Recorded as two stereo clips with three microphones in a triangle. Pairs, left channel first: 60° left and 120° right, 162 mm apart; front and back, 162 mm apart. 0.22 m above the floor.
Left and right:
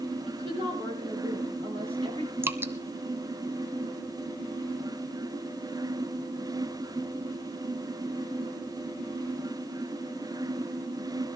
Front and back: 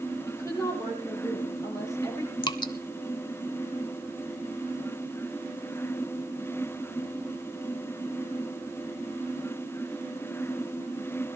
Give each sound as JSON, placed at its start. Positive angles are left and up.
{"t": 0.2, "sound": "a woman speaking", "azimuth_deg": -70, "distance_m": 6.0}
{"t": 2.4, "sound": "dripping", "azimuth_deg": -50, "distance_m": 0.8}